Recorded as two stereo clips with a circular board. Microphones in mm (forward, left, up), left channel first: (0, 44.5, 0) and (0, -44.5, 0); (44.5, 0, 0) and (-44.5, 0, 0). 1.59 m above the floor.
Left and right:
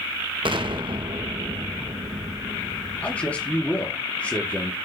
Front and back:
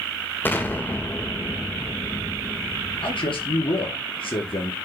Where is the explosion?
70° right, 1.7 m.